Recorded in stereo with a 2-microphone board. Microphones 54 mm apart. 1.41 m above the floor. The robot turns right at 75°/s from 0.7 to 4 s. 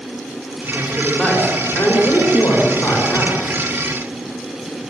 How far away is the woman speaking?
About 5.5 m.